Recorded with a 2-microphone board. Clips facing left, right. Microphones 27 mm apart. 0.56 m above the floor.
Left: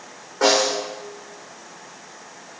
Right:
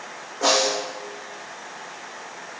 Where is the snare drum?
85° left, 6.5 m.